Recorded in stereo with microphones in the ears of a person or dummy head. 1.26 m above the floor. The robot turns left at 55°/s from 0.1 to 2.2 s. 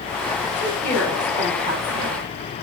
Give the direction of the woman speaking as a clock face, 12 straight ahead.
11 o'clock.